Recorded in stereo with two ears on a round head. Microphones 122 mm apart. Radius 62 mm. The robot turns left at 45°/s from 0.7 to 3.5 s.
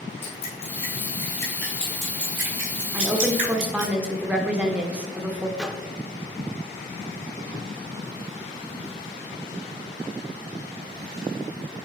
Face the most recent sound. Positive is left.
turn(degrees=-5)  # may be behind; listen again after turning